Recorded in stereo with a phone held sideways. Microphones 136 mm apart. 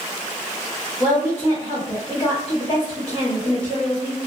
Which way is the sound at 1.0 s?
35° left (ahead or behind).